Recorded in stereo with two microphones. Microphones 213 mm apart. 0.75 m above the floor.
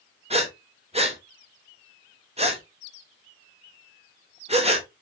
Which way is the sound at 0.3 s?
30° right (ahead or behind).